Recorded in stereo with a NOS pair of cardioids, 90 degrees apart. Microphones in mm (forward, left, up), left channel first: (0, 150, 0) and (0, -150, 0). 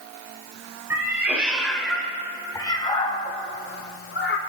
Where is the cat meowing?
10° right, 2.5 m; by 4.4 s 50° left, 1.8 m.